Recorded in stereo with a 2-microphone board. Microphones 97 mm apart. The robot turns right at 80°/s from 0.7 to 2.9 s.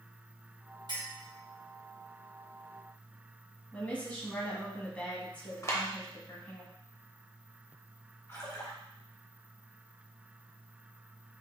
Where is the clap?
30° left (ahead or behind), 0.9 m.